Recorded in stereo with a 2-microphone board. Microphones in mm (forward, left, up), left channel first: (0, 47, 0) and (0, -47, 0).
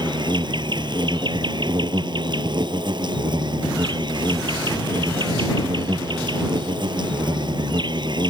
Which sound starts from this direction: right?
An insect, at 0.0 s.